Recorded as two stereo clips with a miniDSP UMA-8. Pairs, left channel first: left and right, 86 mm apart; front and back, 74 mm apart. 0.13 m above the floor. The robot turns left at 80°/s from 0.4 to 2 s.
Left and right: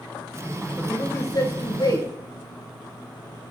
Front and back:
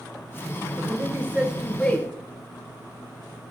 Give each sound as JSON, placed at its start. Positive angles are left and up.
{"t": 0.8, "sound": "a man speaking", "azimuth_deg": 165, "distance_m": 1.6}